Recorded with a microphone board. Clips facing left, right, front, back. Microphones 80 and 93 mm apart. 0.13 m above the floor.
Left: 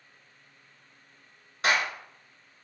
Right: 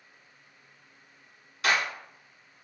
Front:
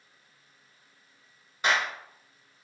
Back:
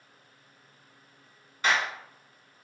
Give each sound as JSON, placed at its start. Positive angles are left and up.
{"t": 1.6, "sound": "a clap", "azimuth_deg": 65, "distance_m": 1.2}